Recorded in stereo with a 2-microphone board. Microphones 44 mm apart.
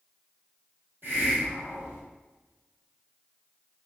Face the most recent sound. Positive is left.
turn(degrees=-55)  # may be behind; listen again after turning